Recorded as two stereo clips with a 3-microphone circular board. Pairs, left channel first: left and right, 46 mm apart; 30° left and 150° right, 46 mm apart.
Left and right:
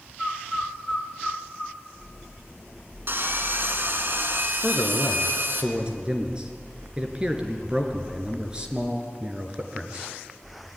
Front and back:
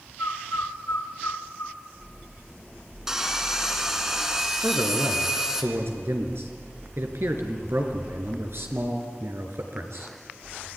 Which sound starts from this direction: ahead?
A bird, at 0.2 s.